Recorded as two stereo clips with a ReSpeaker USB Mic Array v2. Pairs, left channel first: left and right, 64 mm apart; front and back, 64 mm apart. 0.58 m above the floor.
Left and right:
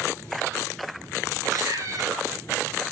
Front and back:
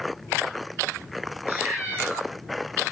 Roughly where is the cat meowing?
Behind right.